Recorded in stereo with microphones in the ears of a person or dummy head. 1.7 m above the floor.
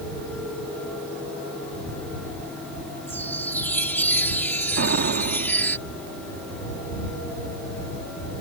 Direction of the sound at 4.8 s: 50° right (ahead or behind).